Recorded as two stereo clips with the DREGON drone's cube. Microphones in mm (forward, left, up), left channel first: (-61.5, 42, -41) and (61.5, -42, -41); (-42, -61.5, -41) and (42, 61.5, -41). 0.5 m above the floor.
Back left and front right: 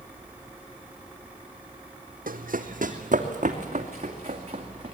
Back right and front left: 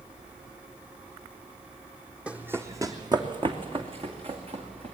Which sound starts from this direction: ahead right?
Running footsteps, at 2.3 s.